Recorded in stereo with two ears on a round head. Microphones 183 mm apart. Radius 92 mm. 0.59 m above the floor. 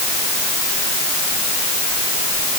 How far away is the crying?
I don't hear crying.